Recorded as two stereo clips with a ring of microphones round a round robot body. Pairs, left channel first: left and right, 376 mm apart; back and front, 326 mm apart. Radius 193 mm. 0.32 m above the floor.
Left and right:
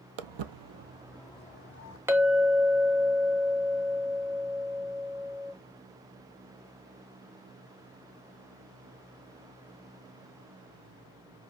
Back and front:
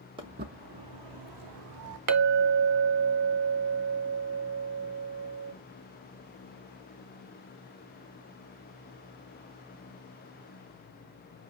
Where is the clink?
10° right, 1.0 m.